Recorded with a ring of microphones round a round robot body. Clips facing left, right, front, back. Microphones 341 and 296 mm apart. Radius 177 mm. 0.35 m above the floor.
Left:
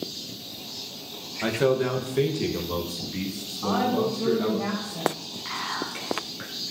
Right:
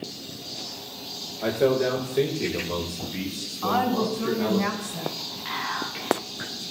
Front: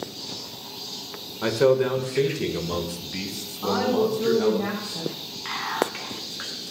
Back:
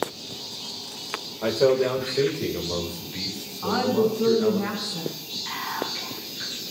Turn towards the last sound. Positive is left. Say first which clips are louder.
# left 1 dB, front 6 dB
turn(degrees=-5)